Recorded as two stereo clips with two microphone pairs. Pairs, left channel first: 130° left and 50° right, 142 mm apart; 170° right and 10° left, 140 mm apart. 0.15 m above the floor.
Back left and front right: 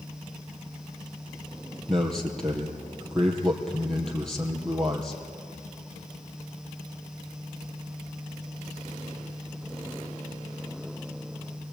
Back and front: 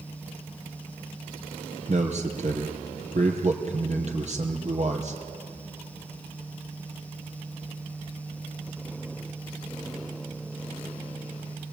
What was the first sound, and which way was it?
A man speaking, 45° left.